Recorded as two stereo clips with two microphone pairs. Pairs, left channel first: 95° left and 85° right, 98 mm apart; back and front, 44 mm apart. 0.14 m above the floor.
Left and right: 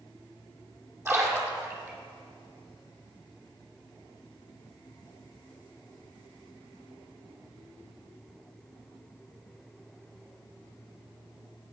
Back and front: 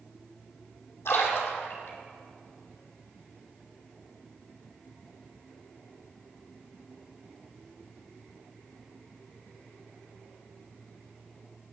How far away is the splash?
About 2.5 m.